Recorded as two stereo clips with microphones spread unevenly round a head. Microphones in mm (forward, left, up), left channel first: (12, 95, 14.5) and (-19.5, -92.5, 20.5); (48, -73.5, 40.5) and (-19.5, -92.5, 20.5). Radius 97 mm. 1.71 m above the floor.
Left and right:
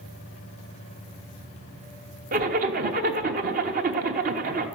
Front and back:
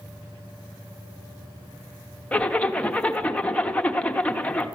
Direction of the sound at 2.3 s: 50° right.